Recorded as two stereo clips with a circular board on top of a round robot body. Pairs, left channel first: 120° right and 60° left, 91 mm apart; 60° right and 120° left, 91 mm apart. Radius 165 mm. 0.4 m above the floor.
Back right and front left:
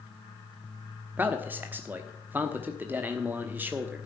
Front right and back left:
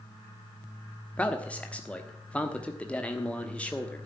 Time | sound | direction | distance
1.2 | a man speaking | 5° left | 1.3 m